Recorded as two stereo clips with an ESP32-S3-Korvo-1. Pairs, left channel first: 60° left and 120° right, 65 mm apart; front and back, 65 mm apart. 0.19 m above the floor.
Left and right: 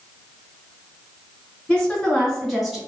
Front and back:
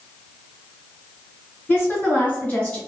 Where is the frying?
I don't hear frying.